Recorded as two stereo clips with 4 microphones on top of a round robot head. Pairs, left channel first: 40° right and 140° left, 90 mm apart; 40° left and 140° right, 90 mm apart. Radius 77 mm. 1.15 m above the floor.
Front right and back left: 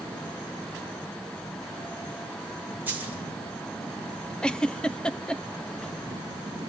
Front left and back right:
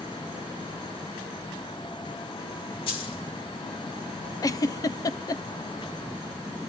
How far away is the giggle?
About 0.8 m.